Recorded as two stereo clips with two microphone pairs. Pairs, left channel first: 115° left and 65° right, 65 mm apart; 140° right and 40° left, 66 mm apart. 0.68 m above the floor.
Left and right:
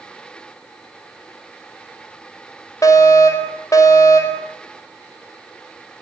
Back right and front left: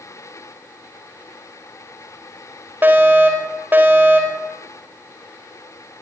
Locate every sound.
2.8 s a fire alarm: 100° left, 4.5 m